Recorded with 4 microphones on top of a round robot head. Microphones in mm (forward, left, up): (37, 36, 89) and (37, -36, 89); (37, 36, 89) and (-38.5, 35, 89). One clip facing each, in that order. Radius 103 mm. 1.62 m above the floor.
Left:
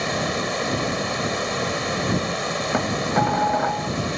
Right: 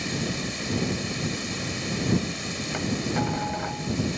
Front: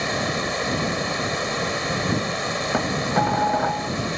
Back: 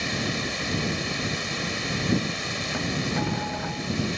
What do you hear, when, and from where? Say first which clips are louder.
0.0 s running water: left 6 dB, front 5 dB; 55° left
2.7 s dishes clattering: left 5 dB, front 6 dB; 40° left